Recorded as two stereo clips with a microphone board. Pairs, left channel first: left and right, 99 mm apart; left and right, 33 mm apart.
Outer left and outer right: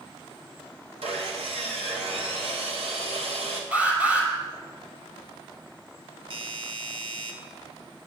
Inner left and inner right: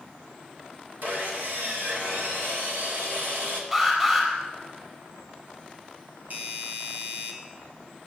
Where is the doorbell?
55° right (ahead or behind), 1.6 m.